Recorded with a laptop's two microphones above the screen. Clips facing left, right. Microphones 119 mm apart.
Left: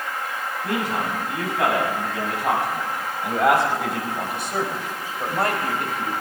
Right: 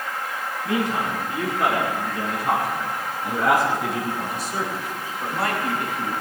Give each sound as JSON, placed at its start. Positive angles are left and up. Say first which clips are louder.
{"t": 0.6, "sound": "a man speaking", "louder": "right 2 dB", "side_deg": 85, "distance_m": 6.5}